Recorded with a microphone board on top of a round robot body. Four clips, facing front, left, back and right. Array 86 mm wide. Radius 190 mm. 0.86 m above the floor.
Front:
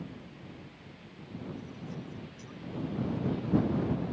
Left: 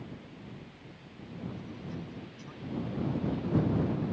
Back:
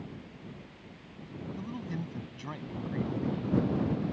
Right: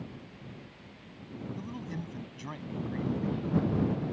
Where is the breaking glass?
I don't hear breaking glass.